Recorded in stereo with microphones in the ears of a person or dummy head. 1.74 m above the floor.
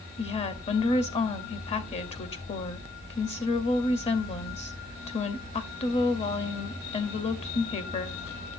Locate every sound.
0.2 s a woman speaking: 30° left (ahead or behind), 0.8 m